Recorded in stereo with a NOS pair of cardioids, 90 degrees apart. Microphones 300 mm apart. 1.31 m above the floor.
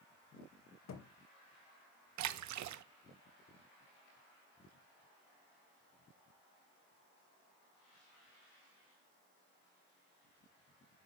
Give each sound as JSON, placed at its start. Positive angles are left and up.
{"t": 0.9, "sound": "a thud", "azimuth_deg": 60, "distance_m": 2.5}
{"t": 2.2, "sound": "a splash", "azimuth_deg": -70, "distance_m": 0.9}